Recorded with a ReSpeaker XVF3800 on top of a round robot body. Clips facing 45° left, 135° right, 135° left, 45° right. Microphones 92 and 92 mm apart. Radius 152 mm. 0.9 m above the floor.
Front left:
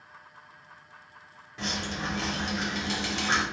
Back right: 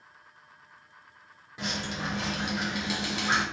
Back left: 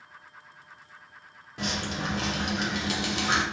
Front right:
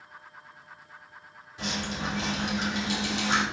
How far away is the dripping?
About 0.9 m.